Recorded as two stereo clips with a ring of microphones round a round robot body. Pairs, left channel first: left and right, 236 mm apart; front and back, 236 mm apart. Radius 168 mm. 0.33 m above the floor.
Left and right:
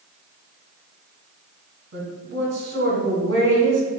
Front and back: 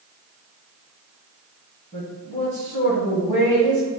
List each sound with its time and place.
1.9 s a woman speaking: 65° right, 2.0 m